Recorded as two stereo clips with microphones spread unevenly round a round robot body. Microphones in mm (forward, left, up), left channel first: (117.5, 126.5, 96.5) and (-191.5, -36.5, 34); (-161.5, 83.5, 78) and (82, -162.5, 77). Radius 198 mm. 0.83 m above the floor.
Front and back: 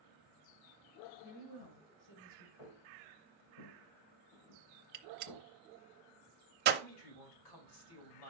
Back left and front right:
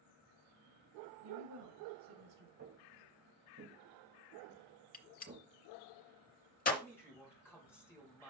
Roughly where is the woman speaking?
Ahead.